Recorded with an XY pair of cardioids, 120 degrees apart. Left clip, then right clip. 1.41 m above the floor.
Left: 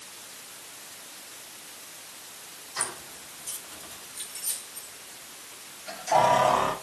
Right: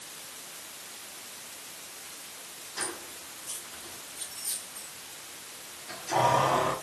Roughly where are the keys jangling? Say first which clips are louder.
Left 2 dB; ahead left.